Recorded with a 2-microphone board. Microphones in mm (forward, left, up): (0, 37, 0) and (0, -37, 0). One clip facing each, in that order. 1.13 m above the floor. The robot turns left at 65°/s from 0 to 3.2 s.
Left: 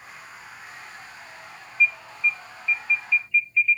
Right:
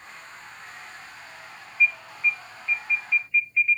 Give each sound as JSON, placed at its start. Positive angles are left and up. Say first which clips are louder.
{"t": 1.8, "sound": "an alarm", "louder": "even", "azimuth_deg": -50, "distance_m": 0.9}